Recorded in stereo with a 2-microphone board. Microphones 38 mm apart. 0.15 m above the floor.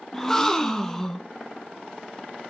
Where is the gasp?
10° left (ahead or behind), 1.0 m.